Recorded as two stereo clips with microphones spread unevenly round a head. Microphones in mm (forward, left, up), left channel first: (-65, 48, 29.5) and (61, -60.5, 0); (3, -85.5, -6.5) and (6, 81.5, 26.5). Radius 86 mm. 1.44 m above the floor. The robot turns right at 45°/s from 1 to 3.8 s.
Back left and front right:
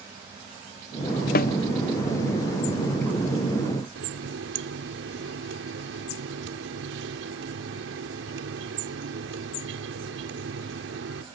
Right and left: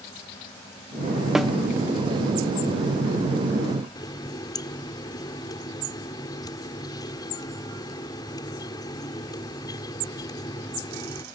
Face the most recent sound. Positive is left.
turn(degrees=-20)